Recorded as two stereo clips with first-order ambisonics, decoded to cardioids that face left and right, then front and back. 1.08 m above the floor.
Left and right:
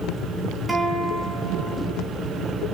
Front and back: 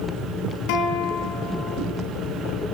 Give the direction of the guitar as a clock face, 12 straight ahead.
12 o'clock.